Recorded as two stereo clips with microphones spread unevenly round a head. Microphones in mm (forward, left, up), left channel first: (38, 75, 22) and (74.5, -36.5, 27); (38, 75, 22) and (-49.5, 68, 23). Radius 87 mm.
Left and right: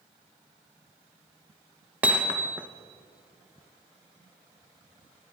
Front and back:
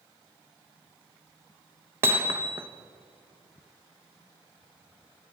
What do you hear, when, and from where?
2.0 s hammering: 135° right, 0.7 m